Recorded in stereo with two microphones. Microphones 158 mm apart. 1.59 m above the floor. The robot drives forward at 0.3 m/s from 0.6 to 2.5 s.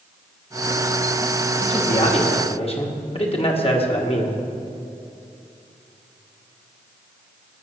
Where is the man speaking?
45° left (ahead or behind), 1.7 m; by 4.4 s 40° left (ahead or behind), 1.9 m.